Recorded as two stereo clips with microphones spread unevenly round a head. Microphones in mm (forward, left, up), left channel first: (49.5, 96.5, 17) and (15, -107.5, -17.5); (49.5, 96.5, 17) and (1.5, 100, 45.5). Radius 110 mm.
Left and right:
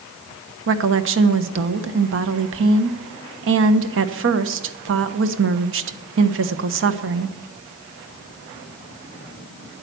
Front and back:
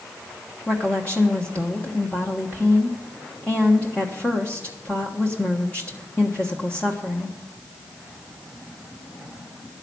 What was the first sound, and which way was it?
A woman speaking, 75° right.